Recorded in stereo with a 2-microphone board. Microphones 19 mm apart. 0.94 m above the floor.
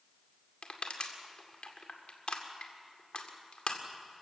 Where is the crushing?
65° left (ahead or behind), 2 m.